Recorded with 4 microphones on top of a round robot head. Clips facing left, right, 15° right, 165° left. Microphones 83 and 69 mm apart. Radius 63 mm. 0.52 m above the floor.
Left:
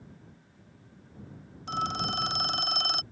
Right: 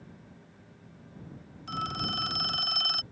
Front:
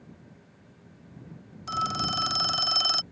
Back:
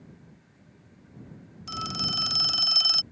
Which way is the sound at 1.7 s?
30° left.